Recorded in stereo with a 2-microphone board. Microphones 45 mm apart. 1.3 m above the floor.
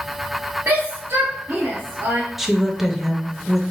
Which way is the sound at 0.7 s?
70° right (ahead or behind).